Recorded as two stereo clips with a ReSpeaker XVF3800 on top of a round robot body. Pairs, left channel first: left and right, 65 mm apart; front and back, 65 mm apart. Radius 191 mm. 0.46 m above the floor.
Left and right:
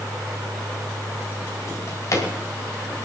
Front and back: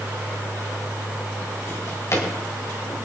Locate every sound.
1.7 s a drawer: 50° left, 3 m